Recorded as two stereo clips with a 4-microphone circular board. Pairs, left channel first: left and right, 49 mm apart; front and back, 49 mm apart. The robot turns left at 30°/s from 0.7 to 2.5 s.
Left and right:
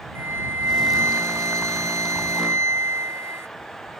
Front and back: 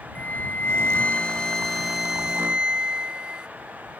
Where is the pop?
No pop in this recording.